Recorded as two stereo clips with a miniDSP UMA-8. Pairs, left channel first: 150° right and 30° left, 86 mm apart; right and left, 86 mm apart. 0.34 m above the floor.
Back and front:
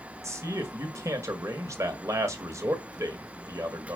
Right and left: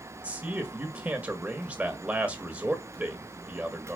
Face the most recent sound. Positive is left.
turn(degrees=30)